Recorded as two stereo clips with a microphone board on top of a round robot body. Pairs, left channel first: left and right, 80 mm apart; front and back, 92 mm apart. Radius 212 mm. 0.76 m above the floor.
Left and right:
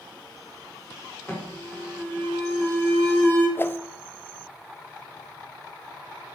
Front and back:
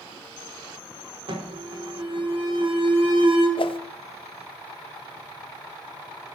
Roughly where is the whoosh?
Ahead left.